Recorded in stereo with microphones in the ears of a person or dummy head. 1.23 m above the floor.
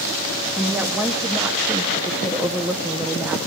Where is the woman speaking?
10° right (ahead or behind), 0.8 m.